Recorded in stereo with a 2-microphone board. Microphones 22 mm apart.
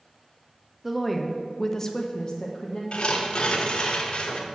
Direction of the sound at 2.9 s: 55° left (ahead or behind).